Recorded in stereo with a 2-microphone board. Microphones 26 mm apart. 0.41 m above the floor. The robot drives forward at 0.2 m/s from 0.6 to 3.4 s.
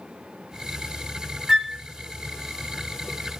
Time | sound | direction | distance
1.5 | a flute | 20° right (ahead or behind) | 0.6 m